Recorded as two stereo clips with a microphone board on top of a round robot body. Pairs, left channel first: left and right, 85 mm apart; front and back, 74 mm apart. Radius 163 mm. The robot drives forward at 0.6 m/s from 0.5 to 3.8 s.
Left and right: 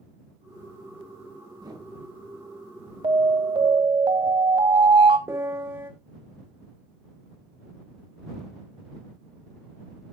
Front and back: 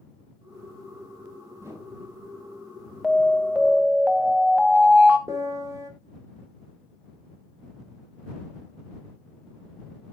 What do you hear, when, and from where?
1.6 s a whoosh: 135° right, 5 m
3.0 s an alarm: 90° right, 1.3 m; by 5.2 s 110° right, 1.4 m
5.3 s a piano: 155° right, 1.8 m